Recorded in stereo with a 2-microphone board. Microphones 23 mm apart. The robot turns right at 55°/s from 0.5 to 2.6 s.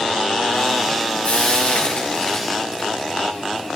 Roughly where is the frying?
Left.